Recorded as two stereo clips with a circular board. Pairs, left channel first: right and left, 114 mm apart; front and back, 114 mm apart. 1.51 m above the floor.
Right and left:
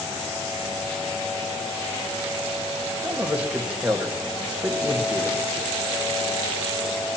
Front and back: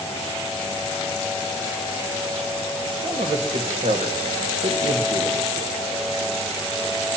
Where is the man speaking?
170° left, 1.8 m.